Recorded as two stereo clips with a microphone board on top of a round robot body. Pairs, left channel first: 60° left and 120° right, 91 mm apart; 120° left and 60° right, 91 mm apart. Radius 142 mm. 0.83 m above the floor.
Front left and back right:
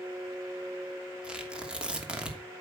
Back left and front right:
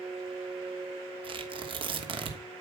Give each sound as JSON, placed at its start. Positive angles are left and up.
{"t": 1.2, "sound": "tearing paper", "azimuth_deg": -40, "distance_m": 3.0}